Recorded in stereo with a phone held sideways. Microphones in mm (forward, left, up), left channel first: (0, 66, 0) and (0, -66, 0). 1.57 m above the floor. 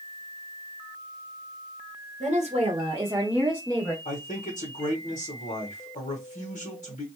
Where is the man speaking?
85° left, 1.0 m.